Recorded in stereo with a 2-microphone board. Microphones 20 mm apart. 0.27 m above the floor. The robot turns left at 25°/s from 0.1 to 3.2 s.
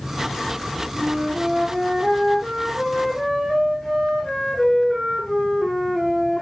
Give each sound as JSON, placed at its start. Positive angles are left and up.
{"t": 0.9, "sound": "a flute", "azimuth_deg": -130, "distance_m": 6.0}